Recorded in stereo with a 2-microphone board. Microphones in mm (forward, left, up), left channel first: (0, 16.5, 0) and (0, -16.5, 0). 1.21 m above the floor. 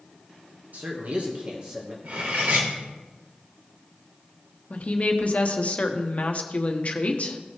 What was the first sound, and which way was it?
A man speaking, 60° right (ahead or behind).